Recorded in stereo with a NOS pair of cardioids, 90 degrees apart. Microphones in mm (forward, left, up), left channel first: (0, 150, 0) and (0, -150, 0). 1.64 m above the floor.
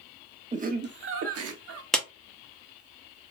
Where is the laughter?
25° right, 0.9 m; by 1.8 s 65° right, 1.2 m.